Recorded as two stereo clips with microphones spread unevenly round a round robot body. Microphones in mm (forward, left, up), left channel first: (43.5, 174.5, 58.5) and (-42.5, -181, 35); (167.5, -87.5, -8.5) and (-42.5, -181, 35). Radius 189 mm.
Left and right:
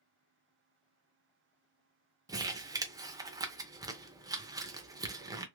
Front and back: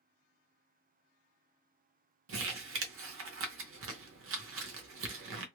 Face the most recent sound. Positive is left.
turn(degrees=180)